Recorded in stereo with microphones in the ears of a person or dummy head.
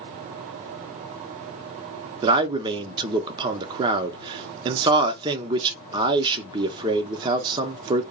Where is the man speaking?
30° right (ahead or behind), 0.6 m.